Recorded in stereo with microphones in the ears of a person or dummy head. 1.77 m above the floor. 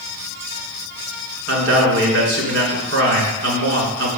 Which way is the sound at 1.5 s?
70° right (ahead or behind).